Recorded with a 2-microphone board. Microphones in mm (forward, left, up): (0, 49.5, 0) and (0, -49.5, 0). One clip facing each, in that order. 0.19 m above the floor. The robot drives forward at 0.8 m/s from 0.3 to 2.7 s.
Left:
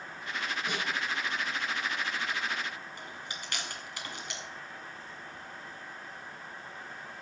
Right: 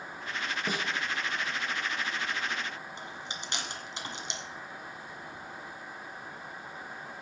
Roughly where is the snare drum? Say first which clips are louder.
Right 4 dB; right.